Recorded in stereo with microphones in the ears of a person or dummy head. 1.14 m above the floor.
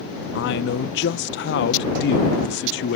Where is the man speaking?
50° left (ahead or behind).